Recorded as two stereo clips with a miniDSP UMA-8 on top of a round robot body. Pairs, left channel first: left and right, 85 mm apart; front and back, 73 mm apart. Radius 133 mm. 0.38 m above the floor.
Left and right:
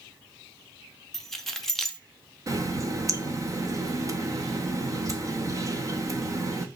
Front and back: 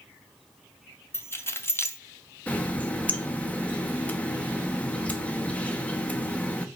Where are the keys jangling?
10° left, 0.8 m.